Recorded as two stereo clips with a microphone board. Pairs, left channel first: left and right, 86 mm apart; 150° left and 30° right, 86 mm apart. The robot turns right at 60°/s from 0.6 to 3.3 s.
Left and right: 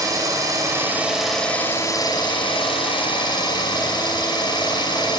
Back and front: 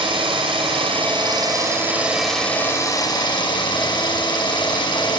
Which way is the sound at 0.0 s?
40° right.